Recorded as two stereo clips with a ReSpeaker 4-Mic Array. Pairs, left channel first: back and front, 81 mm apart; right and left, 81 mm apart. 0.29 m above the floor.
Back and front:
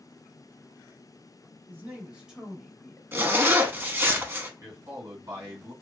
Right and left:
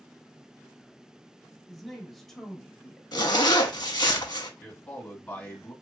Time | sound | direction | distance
1.7 | a woman speaking | 5° left | 1.0 m
3.1 | a zipper | 60° right | 0.5 m
4.6 | a man speaking | 30° right | 1.8 m